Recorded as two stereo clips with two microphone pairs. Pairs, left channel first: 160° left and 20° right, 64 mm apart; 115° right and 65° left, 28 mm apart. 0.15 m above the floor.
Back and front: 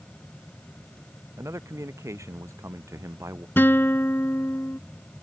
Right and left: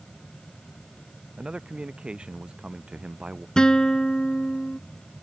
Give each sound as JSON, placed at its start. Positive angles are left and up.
{"t": 1.4, "sound": "a man speaking", "azimuth_deg": 20}
{"t": 3.6, "sound": "a guitar", "azimuth_deg": -165}